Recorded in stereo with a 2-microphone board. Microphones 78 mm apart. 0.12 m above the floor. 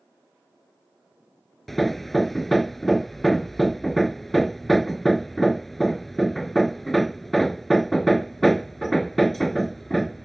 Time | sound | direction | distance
1.7 | hammering | 5° left (ahead or behind) | ?